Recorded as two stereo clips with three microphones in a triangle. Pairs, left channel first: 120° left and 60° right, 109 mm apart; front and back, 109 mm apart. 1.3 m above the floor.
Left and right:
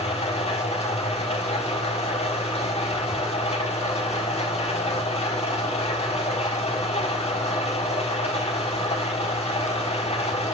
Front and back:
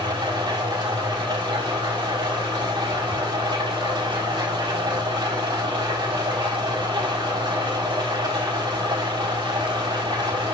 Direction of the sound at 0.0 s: 135° left.